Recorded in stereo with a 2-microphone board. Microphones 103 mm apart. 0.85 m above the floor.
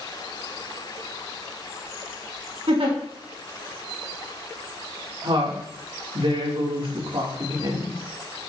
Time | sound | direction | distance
2.7 | a giggle | 75° right (ahead or behind) | 3.5 m
5.2 | a woman speaking | 55° right (ahead or behind) | 2.5 m